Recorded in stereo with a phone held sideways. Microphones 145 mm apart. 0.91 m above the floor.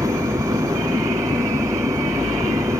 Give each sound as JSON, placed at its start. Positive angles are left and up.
{"t": 0.0, "sound": "an engine running", "side_deg": -20}